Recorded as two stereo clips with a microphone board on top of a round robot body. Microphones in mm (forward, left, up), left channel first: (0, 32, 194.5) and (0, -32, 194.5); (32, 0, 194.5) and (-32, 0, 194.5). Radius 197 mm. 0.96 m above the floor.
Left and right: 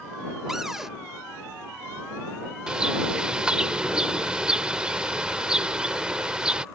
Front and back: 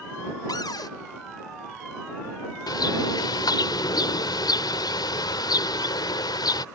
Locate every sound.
0.5 s a cupboard door: 5° right
2.7 s a bird: 10° right